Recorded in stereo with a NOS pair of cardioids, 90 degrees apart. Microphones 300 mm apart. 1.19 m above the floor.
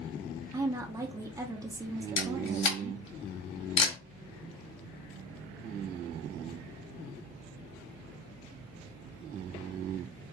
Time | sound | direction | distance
0.5 | a woman speaking | 10° right | 0.7 m
2.2 | a camera shutter | 60° left | 1.3 m